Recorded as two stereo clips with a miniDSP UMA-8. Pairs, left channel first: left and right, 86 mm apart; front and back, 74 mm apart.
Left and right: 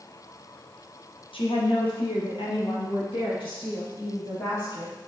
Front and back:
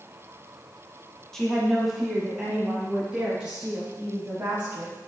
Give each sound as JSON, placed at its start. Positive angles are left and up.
{"t": 1.3, "sound": "a woman speaking", "azimuth_deg": 85, "distance_m": 1.0}